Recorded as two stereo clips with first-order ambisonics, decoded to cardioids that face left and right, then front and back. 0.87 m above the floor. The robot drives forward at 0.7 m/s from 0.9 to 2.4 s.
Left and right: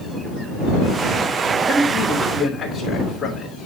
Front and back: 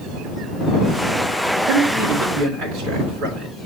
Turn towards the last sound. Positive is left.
turn(degrees=175)